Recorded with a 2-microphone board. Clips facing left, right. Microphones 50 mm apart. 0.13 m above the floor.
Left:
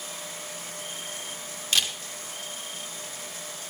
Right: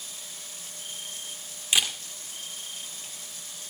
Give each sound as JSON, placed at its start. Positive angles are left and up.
{"t": 1.7, "sound": "a camera shutter", "side_deg": -15, "distance_m": 1.9}